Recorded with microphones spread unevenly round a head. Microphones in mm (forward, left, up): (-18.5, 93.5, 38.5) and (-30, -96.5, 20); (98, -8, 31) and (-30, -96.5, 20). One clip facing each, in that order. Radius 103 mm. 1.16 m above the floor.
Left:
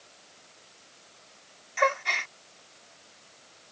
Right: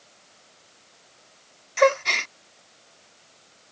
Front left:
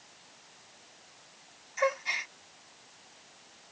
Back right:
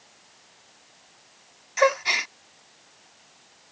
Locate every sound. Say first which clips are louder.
1.8 s a gasp: right 9 dB, back right 8 dB; 135° right